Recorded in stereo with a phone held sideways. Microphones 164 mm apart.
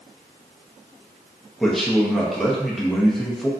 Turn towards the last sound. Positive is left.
turn(degrees=0)  # may be behind; listen again after turning